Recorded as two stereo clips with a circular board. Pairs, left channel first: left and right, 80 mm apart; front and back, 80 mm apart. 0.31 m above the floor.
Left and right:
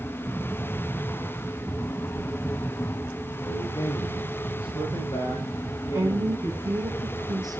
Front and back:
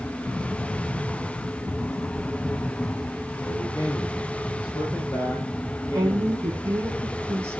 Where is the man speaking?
45° left, 8 m; by 6.8 s 55° left, 11 m.